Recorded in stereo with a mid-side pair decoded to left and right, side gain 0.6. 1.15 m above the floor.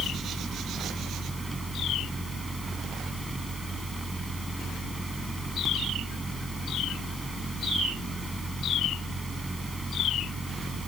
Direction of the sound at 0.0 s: 15° right.